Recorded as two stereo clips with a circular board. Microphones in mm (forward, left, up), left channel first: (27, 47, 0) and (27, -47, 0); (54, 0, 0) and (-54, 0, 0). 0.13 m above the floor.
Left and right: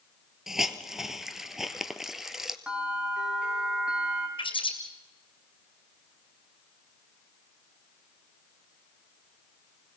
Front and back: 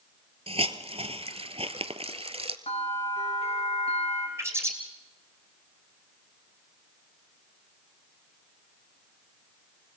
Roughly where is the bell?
Ahead.